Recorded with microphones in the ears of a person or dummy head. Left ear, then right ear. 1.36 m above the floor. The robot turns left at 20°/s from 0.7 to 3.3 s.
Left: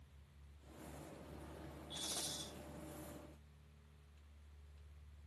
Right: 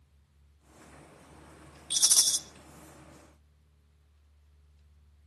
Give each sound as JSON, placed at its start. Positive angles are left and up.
{"t": 1.9, "sound": "a rattle", "side_deg": -70, "distance_m": 1.0}